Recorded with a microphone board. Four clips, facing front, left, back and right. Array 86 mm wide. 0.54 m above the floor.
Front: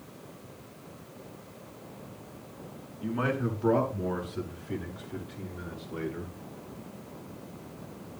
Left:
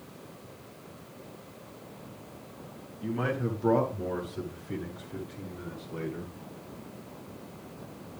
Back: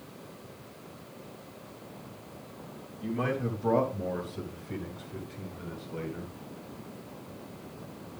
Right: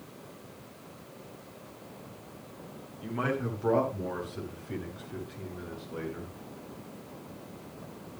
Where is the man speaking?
40° right, 7 m; by 6.3 s 25° right, 8.5 m.